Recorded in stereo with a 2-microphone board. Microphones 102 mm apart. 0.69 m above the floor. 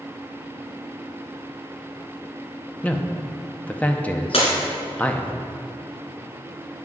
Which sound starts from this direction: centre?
A man speaking, at 2.8 s.